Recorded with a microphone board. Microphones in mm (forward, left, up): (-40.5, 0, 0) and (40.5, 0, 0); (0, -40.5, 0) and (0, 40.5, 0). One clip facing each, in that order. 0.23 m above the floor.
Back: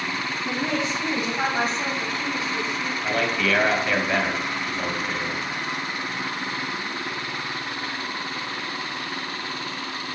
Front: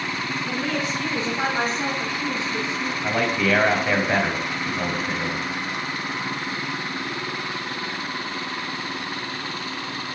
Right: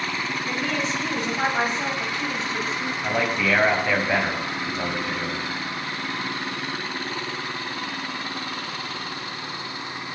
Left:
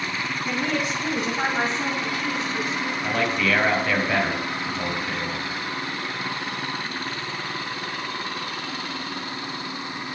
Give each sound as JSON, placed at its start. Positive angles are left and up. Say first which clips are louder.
{"t": 0.5, "sound": "a woman speaking", "louder": "back 2 dB, left 2 dB", "azimuth_deg": 140, "distance_m": 1.9}
{"t": 3.0, "sound": "a man speaking", "louder": "front 2 dB, right 1 dB", "azimuth_deg": -40, "distance_m": 1.0}